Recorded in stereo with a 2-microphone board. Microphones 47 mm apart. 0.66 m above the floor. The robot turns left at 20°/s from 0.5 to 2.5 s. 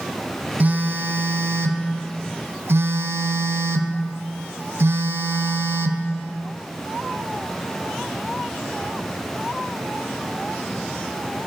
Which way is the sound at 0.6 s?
45° right.